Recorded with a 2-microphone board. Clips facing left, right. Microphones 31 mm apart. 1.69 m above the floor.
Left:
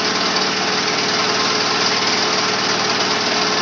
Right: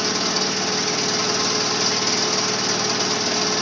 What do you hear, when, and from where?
0.0 s an engine running: 30° left (ahead or behind), 1.0 m